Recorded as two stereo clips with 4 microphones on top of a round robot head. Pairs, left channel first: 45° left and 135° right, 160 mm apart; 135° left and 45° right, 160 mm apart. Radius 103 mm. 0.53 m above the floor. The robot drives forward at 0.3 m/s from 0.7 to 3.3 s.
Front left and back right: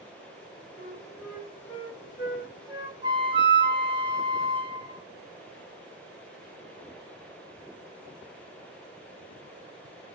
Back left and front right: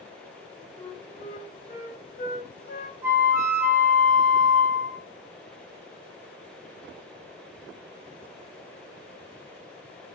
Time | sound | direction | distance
0.8 | a flute | 140° left | 0.9 m
3.0 | a flute | 105° right | 0.9 m